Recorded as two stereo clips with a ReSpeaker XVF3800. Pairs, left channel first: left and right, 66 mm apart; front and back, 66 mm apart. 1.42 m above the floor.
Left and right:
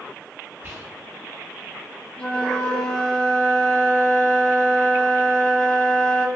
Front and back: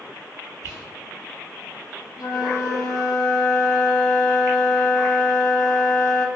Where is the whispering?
35° right, 1.0 m.